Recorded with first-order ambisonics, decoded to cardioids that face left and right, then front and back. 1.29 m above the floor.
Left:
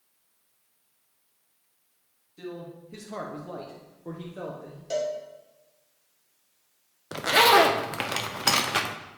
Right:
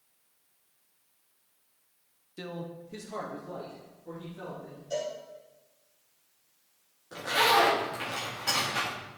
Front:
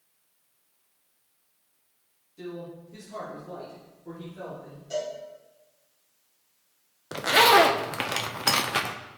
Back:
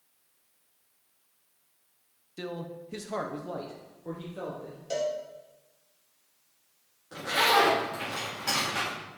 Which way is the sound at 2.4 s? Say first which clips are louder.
Even, back 1 dB; 140° right.